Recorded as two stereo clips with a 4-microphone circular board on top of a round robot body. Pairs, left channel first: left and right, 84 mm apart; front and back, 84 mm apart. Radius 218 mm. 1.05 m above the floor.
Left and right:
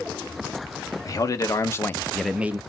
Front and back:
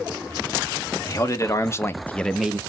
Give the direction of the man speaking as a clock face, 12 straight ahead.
10 o'clock.